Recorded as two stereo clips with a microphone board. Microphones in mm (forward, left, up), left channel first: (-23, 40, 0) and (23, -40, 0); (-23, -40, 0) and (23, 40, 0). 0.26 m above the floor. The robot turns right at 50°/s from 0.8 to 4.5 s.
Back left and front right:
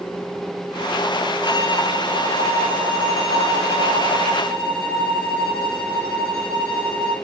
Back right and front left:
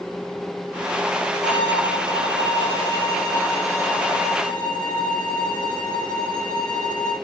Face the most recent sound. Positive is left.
turn(degrees=160)